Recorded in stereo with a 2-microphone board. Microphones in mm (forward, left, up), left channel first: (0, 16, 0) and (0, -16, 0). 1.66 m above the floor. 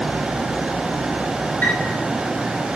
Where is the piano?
85° left, 4.5 m.